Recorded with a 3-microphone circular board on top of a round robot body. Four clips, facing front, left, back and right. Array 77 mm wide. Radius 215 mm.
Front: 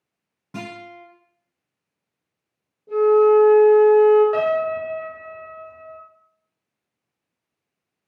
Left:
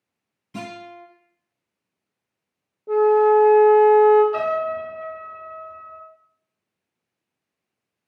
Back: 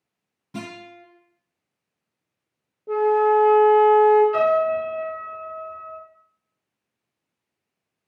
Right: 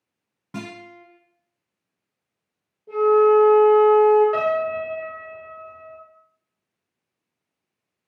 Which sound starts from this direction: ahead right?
A guitar, at 0.5 s.